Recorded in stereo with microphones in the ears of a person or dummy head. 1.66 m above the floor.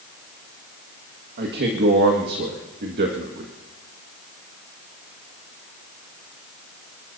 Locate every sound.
1.4 s a man speaking: 60° right (ahead or behind), 1.8 m